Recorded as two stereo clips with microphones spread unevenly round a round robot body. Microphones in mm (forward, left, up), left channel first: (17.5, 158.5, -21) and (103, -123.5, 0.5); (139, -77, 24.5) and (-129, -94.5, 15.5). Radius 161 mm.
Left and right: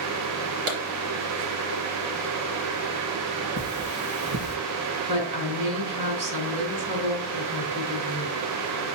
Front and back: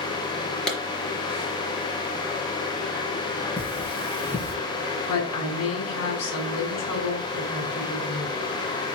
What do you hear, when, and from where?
0.7 s a clap: 85° right, 4 m
3.6 s cutlery clinking: 95° right, 4 m
5.1 s a woman speaking: 25° right, 3 m